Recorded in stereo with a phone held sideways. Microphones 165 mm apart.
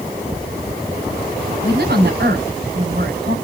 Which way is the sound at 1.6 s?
85° right.